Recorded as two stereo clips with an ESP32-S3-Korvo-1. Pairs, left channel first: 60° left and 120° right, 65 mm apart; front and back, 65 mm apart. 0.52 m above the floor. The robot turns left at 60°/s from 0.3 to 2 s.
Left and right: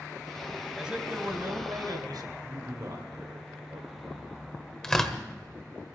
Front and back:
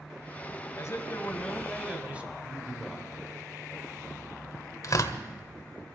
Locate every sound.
0.8 s a man speaking: 35° right, 3 m; by 2.3 s 110° right, 3 m
2.4 s a man speaking: 95° right, 2.5 m
4.8 s tearing paper: 20° right, 1.5 m